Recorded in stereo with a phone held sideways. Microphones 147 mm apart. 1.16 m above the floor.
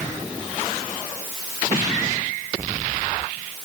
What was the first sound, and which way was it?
Only background noise.